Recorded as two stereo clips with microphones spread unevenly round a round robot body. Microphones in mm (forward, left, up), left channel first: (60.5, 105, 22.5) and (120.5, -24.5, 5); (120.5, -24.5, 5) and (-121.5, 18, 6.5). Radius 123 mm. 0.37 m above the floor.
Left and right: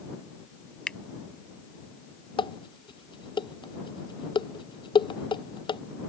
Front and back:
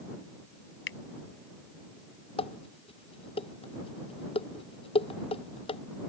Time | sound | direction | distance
0.9 | a finger snap | 30° left | ?
2.4 | dishes clattering | 60° left | ?